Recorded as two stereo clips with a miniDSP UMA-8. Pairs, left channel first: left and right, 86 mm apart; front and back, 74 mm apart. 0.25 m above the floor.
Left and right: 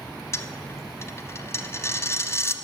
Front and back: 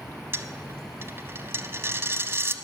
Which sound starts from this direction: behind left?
A dropped coin, at 0.3 s.